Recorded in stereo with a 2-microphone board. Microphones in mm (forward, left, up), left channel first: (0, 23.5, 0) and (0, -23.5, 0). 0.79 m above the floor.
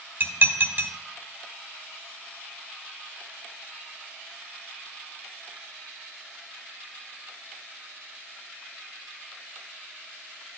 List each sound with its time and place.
0.2 s dishes clattering: 45° right (ahead or behind), 1.3 m